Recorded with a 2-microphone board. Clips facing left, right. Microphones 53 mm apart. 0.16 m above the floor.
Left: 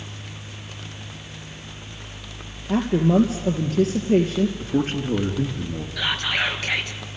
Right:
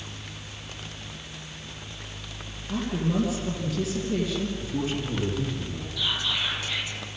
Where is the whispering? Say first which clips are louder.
Left 5 dB; 65° left (ahead or behind), 3 m.